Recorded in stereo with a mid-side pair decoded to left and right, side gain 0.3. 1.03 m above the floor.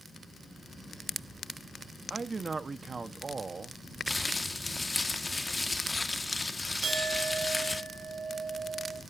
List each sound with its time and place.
2.1 s a man speaking: 45° right, 1.3 m
4.1 s crumpling: 25° left, 1.7 m
6.8 s a clink: 65° right, 3.5 m